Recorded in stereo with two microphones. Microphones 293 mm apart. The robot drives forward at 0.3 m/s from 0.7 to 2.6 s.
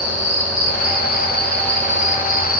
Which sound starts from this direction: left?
An insect, at 0.0 s.